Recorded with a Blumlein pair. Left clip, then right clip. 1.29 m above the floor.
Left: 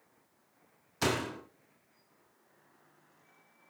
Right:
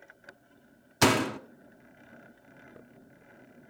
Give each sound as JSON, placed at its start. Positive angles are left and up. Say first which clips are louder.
{"t": 1.0, "sound": "a door slam", "louder": "right 8 dB", "azimuth_deg": -25, "distance_m": 1.5}